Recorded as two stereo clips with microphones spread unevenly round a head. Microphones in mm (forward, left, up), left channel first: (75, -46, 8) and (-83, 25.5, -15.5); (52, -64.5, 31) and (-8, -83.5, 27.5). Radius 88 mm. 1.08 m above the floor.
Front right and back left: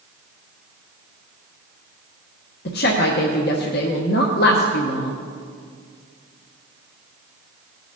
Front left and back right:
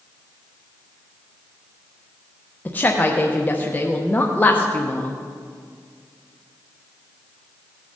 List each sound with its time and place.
2.6 s a woman speaking: 40° right, 0.9 m